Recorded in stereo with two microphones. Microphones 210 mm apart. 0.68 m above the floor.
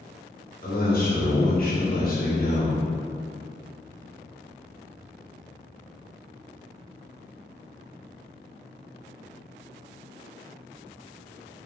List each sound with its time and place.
0.6 s a man speaking: 50° left (ahead or behind), 0.8 m